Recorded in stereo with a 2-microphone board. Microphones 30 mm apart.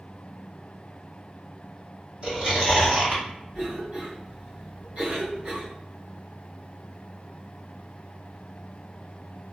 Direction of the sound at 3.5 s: 40° right (ahead or behind).